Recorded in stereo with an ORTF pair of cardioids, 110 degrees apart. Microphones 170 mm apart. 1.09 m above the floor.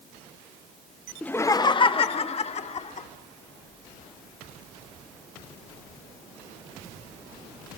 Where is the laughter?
5° left, 0.9 m; by 3.1 s 45° left, 3 m.